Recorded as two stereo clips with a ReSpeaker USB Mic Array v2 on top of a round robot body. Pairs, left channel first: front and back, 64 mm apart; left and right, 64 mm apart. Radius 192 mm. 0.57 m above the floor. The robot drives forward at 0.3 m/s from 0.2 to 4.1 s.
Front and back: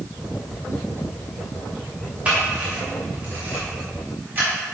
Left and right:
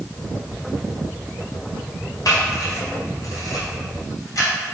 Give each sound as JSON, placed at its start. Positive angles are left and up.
{"t": 2.2, "sound": "a camera shutter", "azimuth_deg": 110, "distance_m": 2.5}